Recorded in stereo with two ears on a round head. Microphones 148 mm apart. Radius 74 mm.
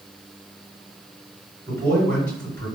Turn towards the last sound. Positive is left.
turn(degrees=25)  # may be behind; listen again after turning